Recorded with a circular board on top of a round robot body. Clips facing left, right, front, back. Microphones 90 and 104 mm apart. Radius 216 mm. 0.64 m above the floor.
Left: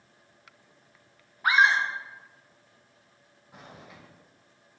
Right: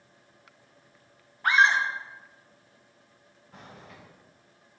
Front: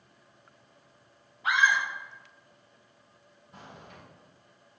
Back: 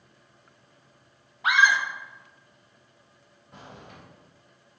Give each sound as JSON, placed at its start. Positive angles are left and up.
{"t": 1.4, "sound": "a scream", "azimuth_deg": 175, "distance_m": 1.6}
{"t": 3.5, "sound": "a zipper", "azimuth_deg": 165, "distance_m": 3.5}